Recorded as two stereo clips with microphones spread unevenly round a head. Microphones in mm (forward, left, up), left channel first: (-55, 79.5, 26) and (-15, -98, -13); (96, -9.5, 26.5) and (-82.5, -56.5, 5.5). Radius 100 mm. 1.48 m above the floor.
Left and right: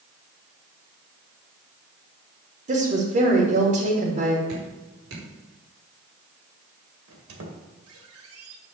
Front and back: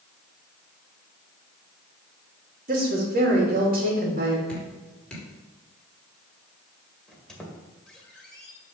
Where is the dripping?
70° right, 5 m.